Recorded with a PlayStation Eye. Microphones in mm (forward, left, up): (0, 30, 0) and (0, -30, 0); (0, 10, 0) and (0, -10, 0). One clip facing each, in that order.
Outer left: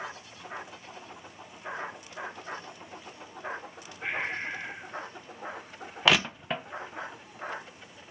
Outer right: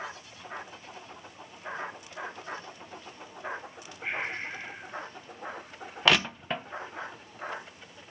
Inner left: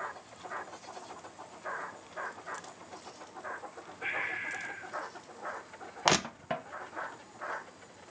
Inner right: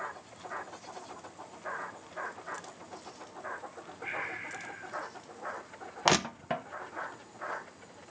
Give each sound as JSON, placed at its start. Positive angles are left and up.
{"t": 4.0, "sound": "breathing", "side_deg": 70, "distance_m": 5.5}
{"t": 6.0, "sound": "crushing", "side_deg": 0, "distance_m": 0.7}